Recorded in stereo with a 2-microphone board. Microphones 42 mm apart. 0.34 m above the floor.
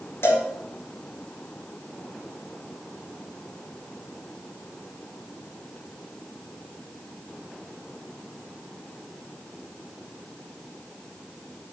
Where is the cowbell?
70° left (ahead or behind), 2 m.